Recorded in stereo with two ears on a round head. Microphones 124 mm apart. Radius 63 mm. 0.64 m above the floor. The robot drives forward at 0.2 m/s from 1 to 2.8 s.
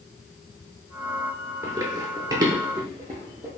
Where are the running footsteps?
20° right (ahead or behind), 0.6 m.